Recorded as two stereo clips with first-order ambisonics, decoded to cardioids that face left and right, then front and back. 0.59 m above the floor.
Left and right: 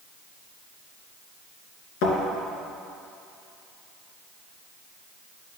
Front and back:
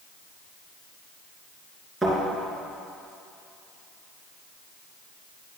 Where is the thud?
95° left, 2.5 m.